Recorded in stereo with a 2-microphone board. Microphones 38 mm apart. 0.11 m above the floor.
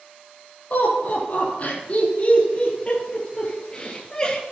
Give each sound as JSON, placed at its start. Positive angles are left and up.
{"t": 0.7, "sound": "laughter", "side_deg": 45, "distance_m": 4.0}